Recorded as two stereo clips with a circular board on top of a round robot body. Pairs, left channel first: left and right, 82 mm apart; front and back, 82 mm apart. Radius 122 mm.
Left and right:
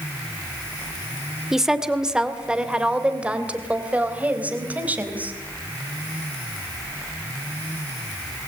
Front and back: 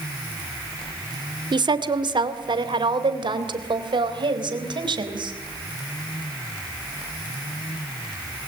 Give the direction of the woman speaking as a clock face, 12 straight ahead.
6 o'clock.